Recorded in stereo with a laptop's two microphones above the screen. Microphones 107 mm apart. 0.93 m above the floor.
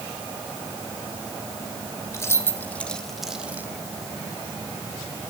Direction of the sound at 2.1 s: 30° left (ahead or behind).